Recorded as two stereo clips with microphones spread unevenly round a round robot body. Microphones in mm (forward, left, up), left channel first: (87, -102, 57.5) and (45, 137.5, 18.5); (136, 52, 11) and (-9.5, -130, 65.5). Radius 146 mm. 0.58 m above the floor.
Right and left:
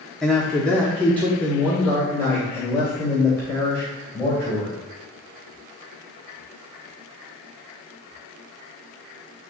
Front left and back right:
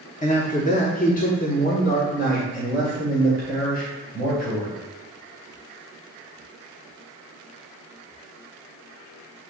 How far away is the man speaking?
About 1.0 m.